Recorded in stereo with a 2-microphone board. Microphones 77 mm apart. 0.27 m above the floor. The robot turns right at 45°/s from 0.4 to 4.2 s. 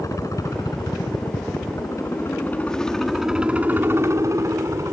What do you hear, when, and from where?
0.0 s a helicopter: 45° left (ahead or behind); by 4.9 s 40° right (ahead or behind)